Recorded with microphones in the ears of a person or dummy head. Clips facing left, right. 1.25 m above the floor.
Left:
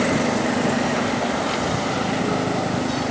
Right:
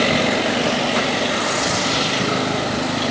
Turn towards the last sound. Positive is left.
No sound to turn to.